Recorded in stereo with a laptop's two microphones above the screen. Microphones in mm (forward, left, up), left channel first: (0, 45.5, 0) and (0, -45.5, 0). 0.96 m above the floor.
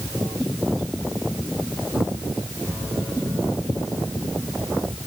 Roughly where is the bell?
I don't hear a bell.